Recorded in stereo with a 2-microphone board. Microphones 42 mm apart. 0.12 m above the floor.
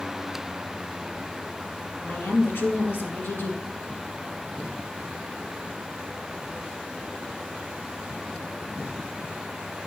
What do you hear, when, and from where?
2.0 s a woman speaking: 60° left (ahead or behind), 3 m